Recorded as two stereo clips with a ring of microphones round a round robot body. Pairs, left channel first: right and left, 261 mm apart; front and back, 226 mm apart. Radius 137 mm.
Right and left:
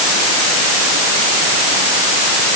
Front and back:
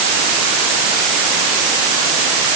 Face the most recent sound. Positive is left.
No sound to turn to.